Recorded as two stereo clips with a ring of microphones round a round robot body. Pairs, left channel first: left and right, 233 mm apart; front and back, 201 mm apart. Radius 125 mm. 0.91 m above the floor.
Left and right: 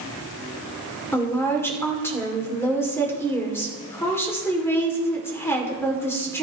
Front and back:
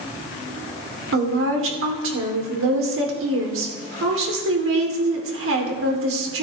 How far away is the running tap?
No running tap in this recording.